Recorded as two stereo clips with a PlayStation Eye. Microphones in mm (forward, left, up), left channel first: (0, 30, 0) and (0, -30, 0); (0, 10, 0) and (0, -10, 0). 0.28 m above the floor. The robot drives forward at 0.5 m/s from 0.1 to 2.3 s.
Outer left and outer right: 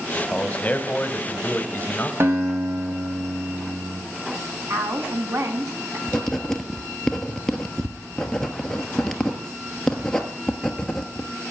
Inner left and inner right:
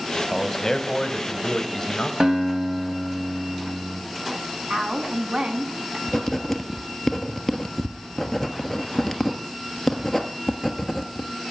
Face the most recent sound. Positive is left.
turn(degrees=10)  # may be behind; listen again after turning